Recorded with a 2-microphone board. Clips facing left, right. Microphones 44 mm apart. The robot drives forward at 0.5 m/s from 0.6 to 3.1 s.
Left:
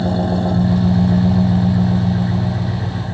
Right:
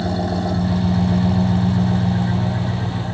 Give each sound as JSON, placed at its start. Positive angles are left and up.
{"t": 0.0, "sound": "an engine running", "side_deg": 20, "distance_m": 1.6}